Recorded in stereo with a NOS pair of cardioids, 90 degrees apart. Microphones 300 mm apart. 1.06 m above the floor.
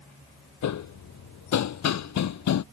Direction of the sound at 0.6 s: 65° left.